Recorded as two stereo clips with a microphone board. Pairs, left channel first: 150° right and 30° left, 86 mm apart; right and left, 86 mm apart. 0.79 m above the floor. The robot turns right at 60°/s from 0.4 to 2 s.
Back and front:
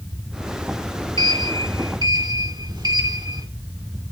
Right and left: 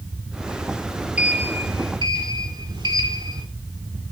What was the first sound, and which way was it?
A sliding door, 15° left.